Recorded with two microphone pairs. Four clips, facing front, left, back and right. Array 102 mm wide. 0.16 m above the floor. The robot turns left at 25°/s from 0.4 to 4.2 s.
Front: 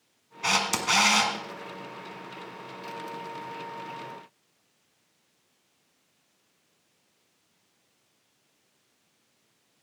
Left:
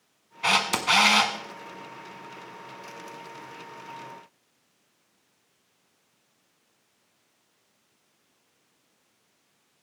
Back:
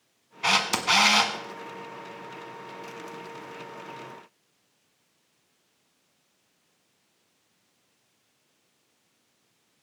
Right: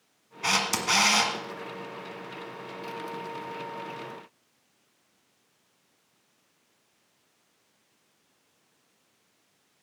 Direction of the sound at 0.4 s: 125° left.